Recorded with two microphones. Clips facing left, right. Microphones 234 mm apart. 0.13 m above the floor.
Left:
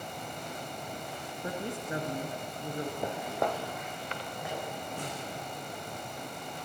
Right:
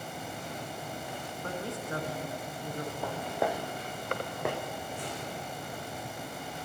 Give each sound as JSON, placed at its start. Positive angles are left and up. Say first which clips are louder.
{"t": 1.4, "sound": "a woman speaking", "louder": "left 1 dB", "side_deg": 15, "distance_m": 1.1}
{"t": 3.0, "sound": "footsteps", "louder": "right 2 dB", "side_deg": 20, "distance_m": 0.9}
{"t": 5.0, "sound": "a snare drum", "louder": "even", "side_deg": 65, "distance_m": 4.0}